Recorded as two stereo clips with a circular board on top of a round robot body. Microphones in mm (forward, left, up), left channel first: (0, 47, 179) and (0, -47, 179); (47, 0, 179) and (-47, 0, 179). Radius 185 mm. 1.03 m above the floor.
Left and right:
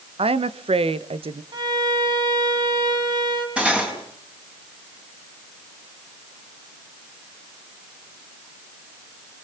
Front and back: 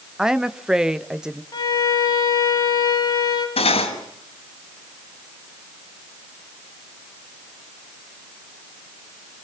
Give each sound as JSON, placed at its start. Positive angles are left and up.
{"t": 0.2, "sound": "a woman speaking", "azimuth_deg": -95, "distance_m": 1.1}
{"t": 1.5, "sound": "a violin", "azimuth_deg": -50, "distance_m": 4.5}
{"t": 3.6, "sound": "cutlery clinking", "azimuth_deg": -10, "distance_m": 5.0}